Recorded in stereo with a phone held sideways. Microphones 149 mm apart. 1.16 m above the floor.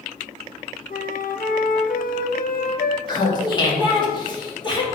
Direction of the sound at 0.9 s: 70° left (ahead or behind).